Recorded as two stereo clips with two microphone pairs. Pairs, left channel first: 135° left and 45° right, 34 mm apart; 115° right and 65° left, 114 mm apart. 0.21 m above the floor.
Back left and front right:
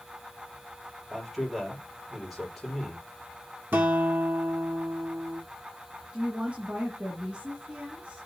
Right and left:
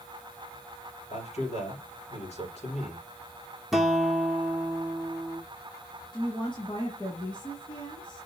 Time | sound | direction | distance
1.1 | a man speaking | 130° right | 4.5 m
3.7 | a guitar | 25° right | 1.4 m
6.1 | a woman speaking | 85° right | 1.7 m